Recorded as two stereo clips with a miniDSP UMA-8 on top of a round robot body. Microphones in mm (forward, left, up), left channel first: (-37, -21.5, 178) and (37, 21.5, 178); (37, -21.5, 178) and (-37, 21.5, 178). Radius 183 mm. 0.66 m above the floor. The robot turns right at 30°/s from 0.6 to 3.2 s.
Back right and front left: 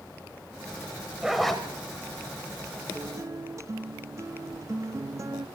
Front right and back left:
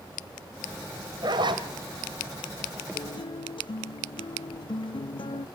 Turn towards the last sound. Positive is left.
turn(degrees=-20)